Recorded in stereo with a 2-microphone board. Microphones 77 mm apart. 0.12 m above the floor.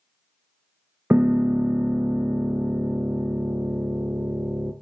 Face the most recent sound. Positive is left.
turn(degrees=-30)  # may be behind; listen again after turning